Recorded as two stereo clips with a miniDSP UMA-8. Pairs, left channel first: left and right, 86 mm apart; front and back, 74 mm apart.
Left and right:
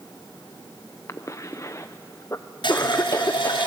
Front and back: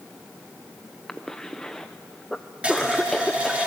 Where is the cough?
80° left, 0.6 m.